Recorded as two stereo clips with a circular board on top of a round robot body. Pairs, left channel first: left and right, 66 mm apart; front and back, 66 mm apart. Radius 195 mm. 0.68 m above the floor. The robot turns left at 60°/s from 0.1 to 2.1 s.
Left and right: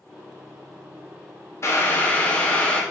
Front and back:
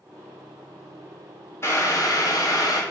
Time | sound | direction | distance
1.6 | boiling | 50° left | 1.2 m